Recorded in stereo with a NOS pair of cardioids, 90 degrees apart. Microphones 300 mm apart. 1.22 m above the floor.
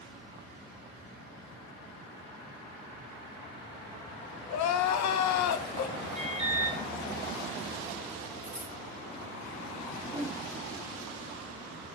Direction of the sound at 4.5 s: 70° left.